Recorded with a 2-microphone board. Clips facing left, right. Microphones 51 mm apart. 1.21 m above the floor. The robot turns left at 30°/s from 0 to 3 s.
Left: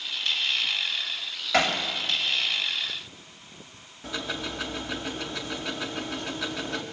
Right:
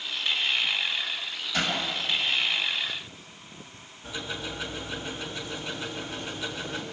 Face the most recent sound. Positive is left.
turn(degrees=75)  # may be behind; listen again after turning